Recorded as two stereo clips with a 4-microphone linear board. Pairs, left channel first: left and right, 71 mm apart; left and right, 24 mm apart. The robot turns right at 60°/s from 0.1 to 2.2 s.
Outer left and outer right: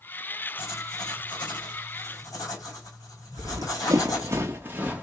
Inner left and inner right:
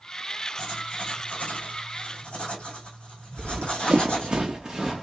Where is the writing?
30° left (ahead or behind), 3 m; by 4.4 s 55° left (ahead or behind), 3 m.